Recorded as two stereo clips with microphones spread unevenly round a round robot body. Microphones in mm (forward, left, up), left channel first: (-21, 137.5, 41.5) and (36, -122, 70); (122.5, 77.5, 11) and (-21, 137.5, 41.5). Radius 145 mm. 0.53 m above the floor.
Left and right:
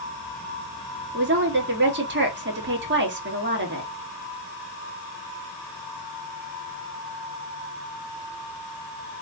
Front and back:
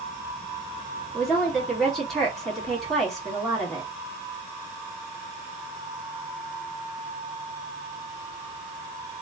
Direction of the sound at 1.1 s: 95° right.